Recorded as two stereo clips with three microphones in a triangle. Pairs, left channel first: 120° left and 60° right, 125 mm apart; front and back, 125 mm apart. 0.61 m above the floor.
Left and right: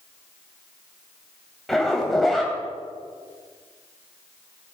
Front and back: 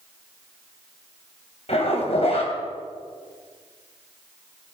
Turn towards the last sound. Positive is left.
turn(degrees=30)